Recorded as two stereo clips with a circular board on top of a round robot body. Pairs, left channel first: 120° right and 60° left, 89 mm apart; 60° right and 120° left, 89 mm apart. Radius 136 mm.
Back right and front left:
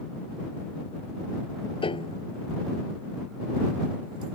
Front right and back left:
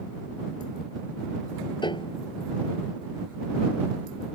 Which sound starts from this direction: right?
A piano, at 1.8 s.